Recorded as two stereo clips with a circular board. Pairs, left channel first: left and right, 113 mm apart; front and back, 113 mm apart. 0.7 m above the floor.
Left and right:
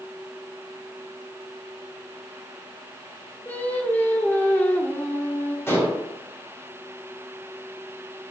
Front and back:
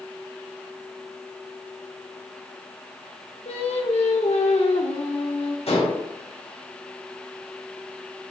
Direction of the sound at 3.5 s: 15° left.